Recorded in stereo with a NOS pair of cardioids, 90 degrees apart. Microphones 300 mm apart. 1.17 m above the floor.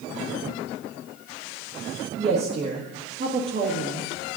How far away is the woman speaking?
About 1.5 m.